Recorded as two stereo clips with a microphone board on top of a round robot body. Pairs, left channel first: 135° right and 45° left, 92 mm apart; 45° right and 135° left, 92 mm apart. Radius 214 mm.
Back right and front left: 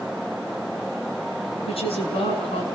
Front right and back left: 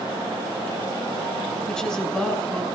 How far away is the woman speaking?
About 6 m.